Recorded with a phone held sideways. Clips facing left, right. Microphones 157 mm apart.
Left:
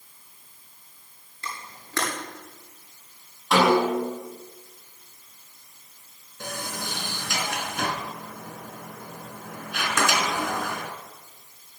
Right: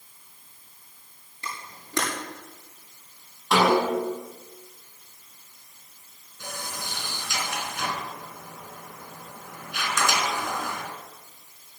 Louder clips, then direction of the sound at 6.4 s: Left 3 dB; 65° left (ahead or behind).